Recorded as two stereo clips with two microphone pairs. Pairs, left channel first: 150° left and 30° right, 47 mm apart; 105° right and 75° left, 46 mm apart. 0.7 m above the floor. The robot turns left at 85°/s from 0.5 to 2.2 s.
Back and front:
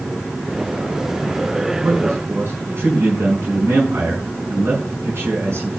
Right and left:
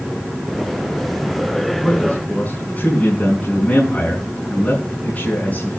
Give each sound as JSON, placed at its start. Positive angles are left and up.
{"t": 1.8, "sound": "a man speaking", "azimuth_deg": -20, "distance_m": 5.5}